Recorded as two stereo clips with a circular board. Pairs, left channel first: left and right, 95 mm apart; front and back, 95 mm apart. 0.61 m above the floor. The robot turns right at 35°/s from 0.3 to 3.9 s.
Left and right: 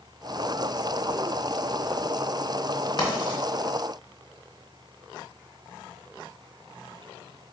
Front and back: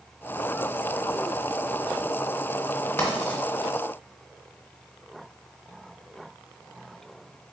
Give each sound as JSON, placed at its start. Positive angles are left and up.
{"t": 3.0, "sound": "writing", "azimuth_deg": 55, "distance_m": 1.2}